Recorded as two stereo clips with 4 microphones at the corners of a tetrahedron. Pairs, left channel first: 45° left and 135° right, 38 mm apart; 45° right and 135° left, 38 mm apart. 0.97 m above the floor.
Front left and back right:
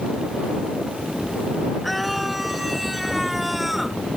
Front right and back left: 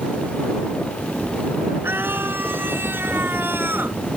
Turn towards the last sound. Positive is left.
turn(degrees=140)